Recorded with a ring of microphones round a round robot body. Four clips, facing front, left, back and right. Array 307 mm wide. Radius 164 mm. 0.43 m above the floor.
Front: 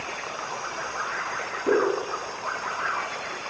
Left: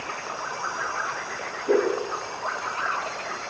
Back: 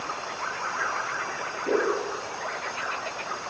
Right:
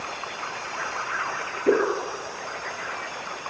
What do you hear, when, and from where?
1.7 s a whoosh: 75° right, 8.5 m